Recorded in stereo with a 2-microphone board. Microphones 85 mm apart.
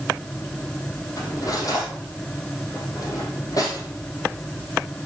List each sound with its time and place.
1.2 s cutlery clinking: 50° left (ahead or behind), 5 m